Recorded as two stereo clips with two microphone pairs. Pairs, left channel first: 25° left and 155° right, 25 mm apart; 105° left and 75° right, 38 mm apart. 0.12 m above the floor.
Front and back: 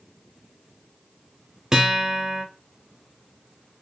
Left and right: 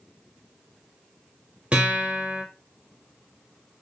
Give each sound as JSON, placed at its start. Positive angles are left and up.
{"t": 1.7, "sound": "a guitar", "azimuth_deg": -100, "distance_m": 0.9}